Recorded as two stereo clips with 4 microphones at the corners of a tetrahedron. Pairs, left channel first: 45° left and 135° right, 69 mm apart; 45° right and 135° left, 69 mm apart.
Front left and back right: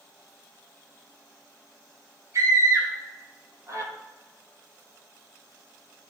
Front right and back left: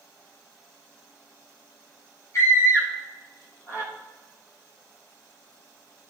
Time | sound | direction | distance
2.3 | a scream | 90° right | 8 m